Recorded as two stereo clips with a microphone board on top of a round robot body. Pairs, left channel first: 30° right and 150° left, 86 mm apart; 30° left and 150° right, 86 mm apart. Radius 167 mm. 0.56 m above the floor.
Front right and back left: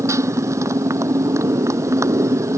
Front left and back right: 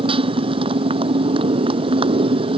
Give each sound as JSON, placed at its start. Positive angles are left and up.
{"t": 0.0, "sound": "a motorcycle", "azimuth_deg": -155}